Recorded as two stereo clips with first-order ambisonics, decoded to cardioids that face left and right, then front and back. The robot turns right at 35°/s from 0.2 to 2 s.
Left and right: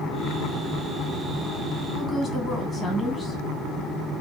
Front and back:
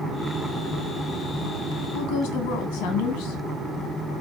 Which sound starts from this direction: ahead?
A woman speaking, at 1.9 s.